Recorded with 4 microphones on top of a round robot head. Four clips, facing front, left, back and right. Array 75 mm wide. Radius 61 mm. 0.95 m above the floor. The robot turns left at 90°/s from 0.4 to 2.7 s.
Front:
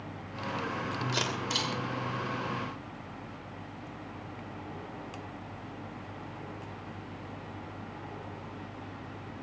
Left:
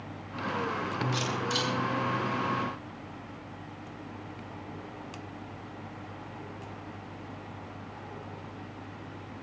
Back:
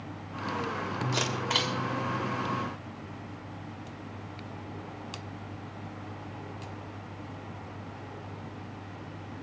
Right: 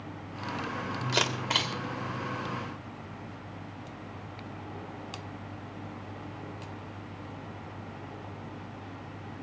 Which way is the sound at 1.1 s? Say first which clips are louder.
Right 1 dB, back 5 dB; 90° right.